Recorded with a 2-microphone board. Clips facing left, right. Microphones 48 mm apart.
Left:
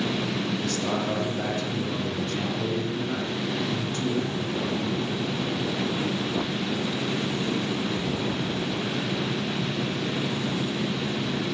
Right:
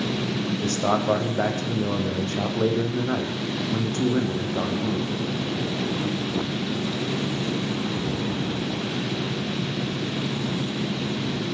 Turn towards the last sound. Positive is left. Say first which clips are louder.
# right 4 dB
turn(degrees=-45)  # may be behind; listen again after turning